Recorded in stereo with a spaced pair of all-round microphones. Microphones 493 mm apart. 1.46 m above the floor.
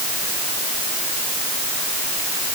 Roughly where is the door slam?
I don't hear a door slam.